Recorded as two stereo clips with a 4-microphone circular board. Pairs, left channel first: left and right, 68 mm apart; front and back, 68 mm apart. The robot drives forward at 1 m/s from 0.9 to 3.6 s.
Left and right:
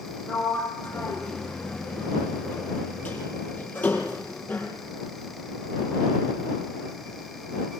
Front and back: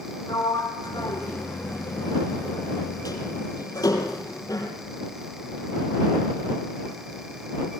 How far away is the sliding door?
About 8.5 m.